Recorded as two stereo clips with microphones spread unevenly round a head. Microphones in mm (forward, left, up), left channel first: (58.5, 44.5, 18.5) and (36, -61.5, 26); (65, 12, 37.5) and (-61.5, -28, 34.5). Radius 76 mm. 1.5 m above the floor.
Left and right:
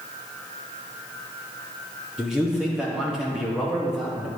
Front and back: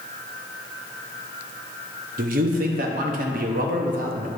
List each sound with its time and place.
2.2 s a man speaking: 170° left, 0.9 m